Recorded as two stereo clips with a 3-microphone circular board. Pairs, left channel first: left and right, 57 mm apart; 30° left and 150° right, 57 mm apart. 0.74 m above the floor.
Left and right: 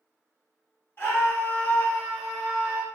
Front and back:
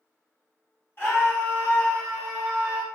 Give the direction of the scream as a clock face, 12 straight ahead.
10 o'clock.